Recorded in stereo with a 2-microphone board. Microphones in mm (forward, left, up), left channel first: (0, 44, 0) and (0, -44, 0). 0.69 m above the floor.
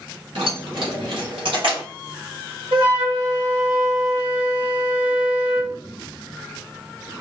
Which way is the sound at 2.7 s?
75° right (ahead or behind).